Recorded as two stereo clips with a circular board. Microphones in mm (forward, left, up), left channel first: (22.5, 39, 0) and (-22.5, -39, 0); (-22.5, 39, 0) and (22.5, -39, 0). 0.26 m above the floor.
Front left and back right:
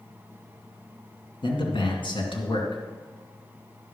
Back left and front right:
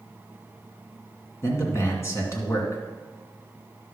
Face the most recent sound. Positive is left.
turn(degrees=65)